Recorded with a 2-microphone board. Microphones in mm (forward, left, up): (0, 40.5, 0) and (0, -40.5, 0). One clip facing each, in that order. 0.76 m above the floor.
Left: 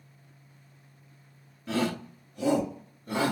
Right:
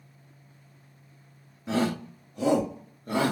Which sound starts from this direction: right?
A shout, at 1.7 s.